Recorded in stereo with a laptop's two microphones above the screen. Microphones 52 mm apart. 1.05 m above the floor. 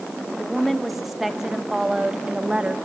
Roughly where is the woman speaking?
Centre.